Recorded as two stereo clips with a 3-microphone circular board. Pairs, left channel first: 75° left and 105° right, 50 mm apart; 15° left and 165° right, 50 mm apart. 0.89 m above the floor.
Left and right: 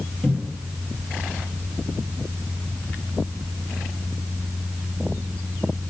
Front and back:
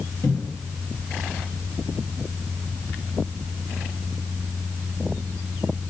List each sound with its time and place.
0.2 s a cupboard door: straight ahead, 1.5 m